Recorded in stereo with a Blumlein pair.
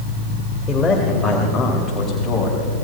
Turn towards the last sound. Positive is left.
turn(degrees=10)